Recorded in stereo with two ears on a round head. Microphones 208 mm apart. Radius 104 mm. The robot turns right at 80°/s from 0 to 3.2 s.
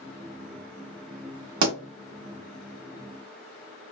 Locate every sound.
1.6 s a pop: 80° right, 1.4 m; by 1.8 s 70° right (ahead or behind), 1.4 m